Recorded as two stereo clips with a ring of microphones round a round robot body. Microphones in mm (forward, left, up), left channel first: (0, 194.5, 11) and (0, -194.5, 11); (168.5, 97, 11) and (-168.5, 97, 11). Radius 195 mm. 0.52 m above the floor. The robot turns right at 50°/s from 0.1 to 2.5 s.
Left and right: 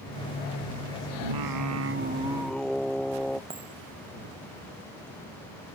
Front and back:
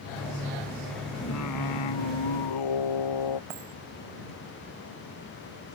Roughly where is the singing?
Ahead right.